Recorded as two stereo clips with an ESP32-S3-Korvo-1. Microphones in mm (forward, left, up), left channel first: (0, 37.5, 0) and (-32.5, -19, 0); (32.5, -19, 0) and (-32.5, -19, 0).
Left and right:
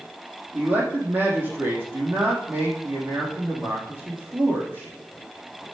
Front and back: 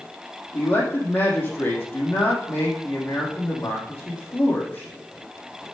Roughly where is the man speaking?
Ahead right.